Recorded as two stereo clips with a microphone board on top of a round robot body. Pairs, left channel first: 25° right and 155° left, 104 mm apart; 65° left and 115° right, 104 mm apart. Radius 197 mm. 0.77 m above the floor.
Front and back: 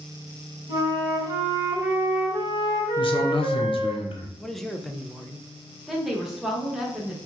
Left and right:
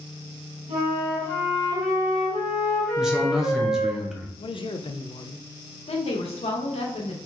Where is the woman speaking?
70° left, 1.0 m.